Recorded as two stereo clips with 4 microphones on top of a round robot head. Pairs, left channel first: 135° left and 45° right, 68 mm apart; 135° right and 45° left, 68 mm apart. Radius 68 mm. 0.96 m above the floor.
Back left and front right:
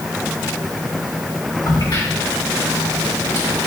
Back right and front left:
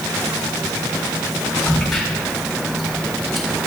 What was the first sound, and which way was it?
A crack, 135° left.